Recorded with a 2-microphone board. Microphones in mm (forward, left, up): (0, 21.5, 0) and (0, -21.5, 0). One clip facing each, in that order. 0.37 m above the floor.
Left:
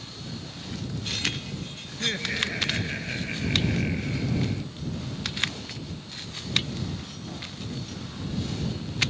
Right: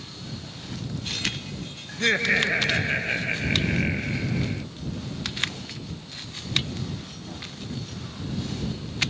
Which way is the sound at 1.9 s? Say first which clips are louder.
Right 8 dB; 45° right (ahead or behind).